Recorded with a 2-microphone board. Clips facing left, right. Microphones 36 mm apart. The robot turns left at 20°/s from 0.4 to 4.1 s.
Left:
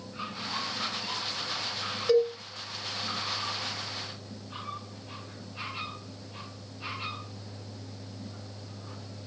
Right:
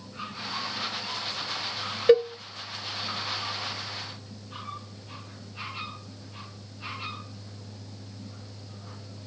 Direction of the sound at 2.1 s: 40° right (ahead or behind).